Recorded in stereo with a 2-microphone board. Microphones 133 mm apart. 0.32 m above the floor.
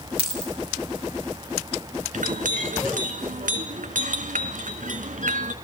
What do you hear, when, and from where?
0.2 s a dropped coin: 45° right (ahead or behind), 9.5 m
2.1 s a clink: 75° right (ahead or behind), 1.9 m